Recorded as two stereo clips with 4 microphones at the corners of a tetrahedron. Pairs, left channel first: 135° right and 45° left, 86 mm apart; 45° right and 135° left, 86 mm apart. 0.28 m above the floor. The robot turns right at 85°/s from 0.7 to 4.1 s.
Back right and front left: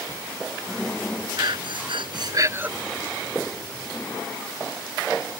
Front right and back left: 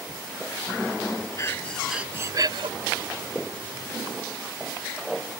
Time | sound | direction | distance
1.4 | breathing | 5° left | ?